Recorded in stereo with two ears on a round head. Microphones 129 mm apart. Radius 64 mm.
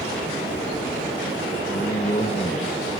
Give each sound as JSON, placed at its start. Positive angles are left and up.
{"t": 1.7, "sound": "a man speaking", "side_deg": 40, "distance_m": 1.7}